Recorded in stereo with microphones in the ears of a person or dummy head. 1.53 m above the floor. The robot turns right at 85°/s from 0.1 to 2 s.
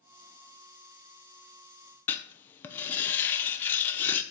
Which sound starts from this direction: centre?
Writing, at 2.1 s.